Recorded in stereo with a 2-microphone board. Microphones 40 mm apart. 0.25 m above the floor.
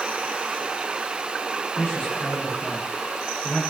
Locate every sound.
1.8 s a man speaking: 60° left (ahead or behind), 2.5 m